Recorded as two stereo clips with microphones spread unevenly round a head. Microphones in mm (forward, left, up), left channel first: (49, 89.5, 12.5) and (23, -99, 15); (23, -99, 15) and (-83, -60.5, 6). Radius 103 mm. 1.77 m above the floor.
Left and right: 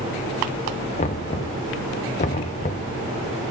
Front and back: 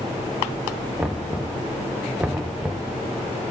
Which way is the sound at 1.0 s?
75° left.